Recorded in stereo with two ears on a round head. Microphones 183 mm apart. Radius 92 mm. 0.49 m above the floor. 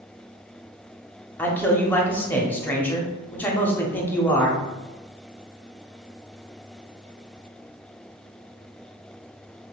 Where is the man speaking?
10° left (ahead or behind), 0.7 m.